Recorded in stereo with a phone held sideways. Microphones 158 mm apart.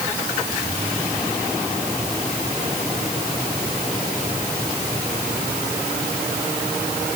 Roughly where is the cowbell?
I don't hear a cowbell.